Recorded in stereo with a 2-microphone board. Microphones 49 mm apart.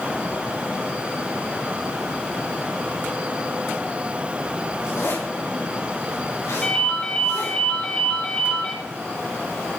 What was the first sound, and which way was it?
A zipper, 75° left (ahead or behind).